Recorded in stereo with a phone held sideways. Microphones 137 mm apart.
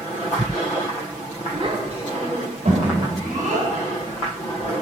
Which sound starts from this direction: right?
A child speaking, at 1.5 s.